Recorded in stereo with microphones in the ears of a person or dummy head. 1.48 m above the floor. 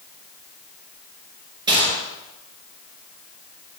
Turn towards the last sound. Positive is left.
turn(degrees=-25)  # may be behind; listen again after turning